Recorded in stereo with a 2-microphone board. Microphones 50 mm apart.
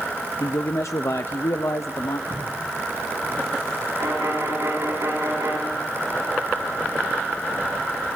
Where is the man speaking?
70° left (ahead or behind), 0.6 m.